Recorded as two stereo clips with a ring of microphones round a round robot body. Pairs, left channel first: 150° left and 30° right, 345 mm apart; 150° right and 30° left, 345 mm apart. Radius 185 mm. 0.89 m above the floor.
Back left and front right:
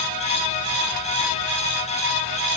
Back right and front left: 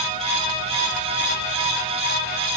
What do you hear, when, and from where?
Only background noise.